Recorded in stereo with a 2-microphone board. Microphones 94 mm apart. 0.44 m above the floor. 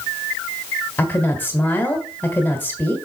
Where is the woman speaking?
20° left (ahead or behind), 1.5 m.